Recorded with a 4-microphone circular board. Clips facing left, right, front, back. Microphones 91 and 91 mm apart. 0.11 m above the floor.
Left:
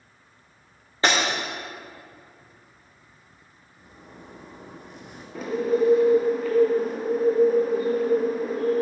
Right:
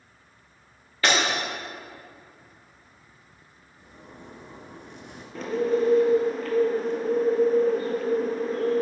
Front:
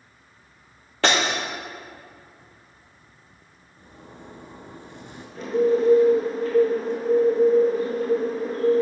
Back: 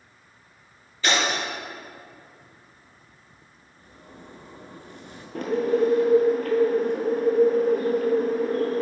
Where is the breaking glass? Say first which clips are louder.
Left 1 dB, front 2 dB; 25° left, 2 m.